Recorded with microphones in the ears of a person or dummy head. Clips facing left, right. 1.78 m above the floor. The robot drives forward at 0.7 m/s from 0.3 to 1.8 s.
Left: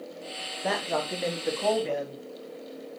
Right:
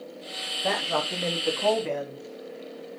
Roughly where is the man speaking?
Centre.